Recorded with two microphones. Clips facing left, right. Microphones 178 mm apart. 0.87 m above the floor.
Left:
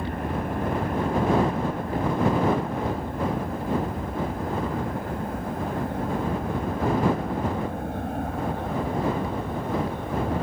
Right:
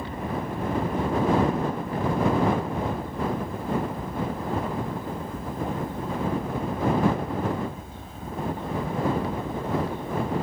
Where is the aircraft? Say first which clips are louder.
Left 2 dB; 60° left (ahead or behind); by 10.4 s 65° left (ahead or behind).